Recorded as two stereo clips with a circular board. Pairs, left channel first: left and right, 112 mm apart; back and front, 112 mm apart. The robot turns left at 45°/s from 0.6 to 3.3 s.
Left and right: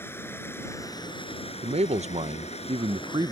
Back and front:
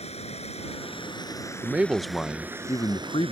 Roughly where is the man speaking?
Right.